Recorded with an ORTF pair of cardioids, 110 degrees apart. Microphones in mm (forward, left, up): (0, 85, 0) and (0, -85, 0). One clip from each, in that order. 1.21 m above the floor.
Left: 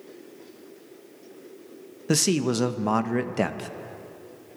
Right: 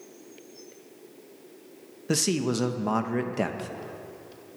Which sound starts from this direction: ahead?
A man speaking, at 2.1 s.